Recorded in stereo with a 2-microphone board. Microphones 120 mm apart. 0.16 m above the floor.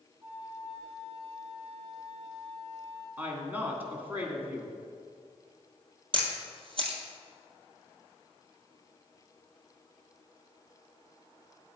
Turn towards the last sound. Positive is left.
turn(degrees=-50)  # may be behind; listen again after turning